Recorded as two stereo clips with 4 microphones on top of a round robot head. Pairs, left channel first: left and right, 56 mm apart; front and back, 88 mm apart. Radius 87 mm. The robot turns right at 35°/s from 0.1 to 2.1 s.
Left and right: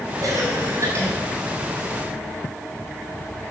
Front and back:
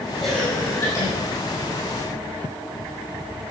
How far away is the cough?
About 6.5 m.